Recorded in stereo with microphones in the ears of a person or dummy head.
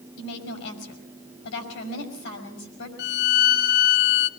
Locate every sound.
0.2 s a woman speaking: 65° left (ahead or behind), 6 m
3.0 s a violin: 45° left (ahead or behind), 0.7 m